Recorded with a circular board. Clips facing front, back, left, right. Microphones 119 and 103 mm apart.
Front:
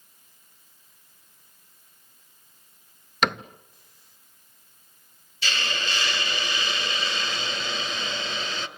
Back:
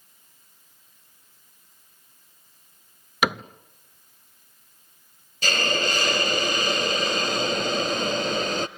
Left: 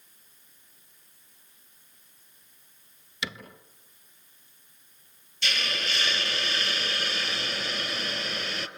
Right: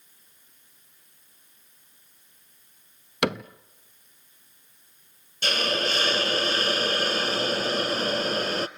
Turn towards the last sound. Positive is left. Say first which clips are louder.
# back 6 dB, right 7 dB
turn(degrees=-135)